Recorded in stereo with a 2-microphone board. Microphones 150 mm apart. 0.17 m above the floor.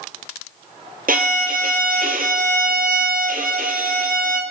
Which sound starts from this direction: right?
A violin, at 1.1 s.